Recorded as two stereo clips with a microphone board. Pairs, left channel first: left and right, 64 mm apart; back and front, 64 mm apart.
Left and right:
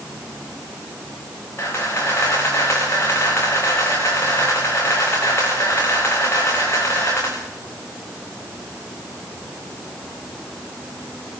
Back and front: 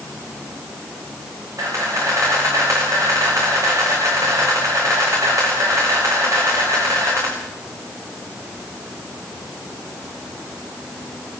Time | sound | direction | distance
1.6 | a camera shutter | 40° left | 7.5 m